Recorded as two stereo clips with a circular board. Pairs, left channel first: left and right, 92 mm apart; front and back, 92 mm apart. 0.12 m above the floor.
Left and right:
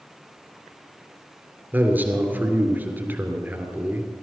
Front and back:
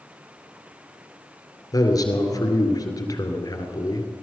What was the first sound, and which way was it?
A man speaking, 25° right.